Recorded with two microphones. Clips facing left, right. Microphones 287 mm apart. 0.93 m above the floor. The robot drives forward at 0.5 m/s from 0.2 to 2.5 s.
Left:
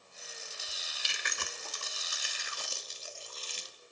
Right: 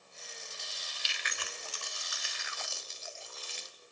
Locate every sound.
0.7 s chewing: 65° left (ahead or behind), 1.2 m; by 3.8 s 40° left (ahead or behind), 1.7 m